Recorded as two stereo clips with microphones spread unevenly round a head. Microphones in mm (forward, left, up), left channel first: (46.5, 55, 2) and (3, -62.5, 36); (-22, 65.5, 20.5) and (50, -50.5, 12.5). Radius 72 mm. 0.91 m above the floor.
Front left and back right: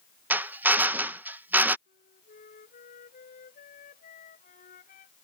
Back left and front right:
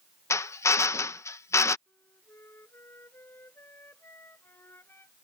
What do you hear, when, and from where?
0.3 s a drill: 155° left
1.9 s a flute: 45° left